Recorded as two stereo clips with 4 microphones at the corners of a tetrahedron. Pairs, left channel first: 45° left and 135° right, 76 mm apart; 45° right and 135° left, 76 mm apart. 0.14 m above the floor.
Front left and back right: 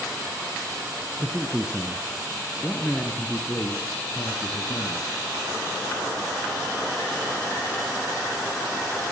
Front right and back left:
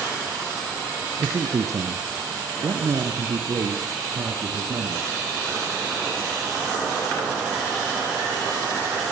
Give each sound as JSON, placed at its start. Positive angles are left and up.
{"t": 1.2, "sound": "a man speaking", "azimuth_deg": 165, "distance_m": 1.9}